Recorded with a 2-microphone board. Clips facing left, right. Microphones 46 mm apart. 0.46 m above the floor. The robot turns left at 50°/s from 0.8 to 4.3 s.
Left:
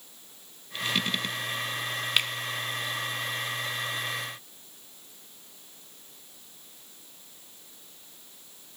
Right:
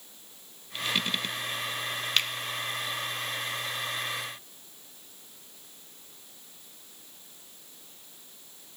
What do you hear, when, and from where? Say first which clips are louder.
2.2 s a finger snap: left 1 dB; 15° left (ahead or behind), 0.6 m